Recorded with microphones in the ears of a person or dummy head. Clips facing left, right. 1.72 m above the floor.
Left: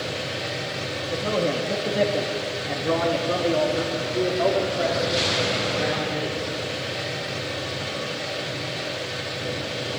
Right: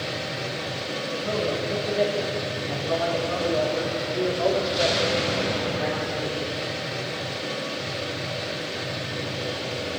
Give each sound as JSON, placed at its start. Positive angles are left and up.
{"t": 1.1, "sound": "a man speaking", "side_deg": 75, "distance_m": 3.0}